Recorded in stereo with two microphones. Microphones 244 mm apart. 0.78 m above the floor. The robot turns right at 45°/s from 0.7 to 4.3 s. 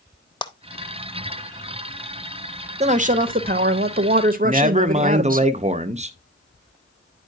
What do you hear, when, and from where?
0.4 s a clap: 20° left (ahead or behind), 0.6 m
2.8 s a woman speaking: 135° right, 0.6 m; by 5.4 s 65° right, 0.6 m
4.4 s a man speaking: 30° right (ahead or behind), 0.6 m